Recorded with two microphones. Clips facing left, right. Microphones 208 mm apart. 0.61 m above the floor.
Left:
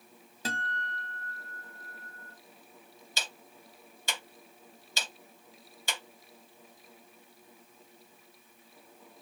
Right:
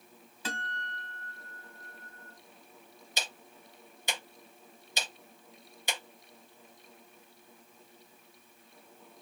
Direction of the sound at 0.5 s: 45° left (ahead or behind).